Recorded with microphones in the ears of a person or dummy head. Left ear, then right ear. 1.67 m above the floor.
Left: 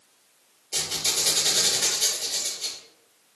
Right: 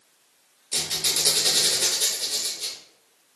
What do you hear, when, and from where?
0.7 s a squeak: 50° right (ahead or behind), 1.0 m